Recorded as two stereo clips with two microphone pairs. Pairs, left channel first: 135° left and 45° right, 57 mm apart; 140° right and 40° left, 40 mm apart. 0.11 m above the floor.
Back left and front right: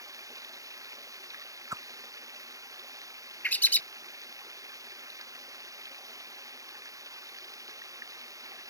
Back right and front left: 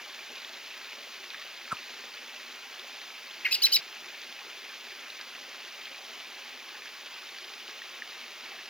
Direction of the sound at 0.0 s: 35° right.